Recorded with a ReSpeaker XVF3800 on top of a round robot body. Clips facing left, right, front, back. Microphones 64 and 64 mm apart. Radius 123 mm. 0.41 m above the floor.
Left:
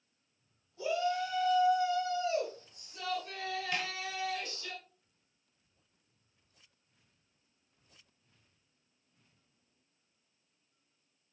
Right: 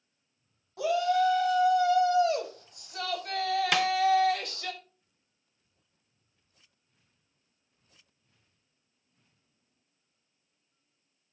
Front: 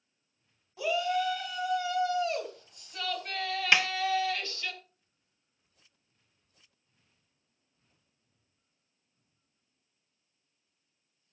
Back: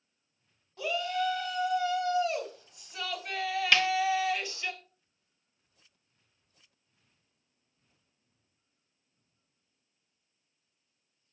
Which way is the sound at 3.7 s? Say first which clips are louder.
Right 11 dB, even; 75° right.